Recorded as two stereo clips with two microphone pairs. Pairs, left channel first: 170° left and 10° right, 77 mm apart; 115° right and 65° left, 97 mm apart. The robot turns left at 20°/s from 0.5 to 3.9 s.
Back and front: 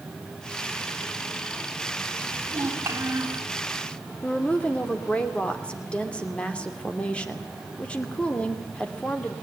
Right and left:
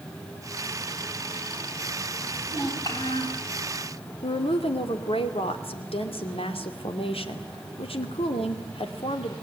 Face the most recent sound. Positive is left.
turn(degrees=-110)